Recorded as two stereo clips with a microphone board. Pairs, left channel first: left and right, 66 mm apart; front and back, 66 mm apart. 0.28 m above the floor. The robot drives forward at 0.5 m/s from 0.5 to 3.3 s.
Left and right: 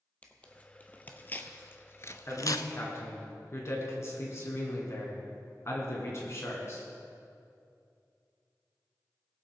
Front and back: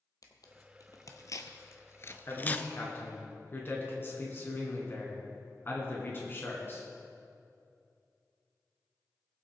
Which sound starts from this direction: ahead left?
A man speaking, at 2.3 s.